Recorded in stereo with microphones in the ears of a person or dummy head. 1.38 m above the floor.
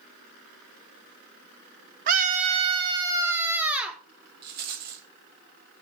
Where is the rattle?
55° right (ahead or behind), 2.5 m.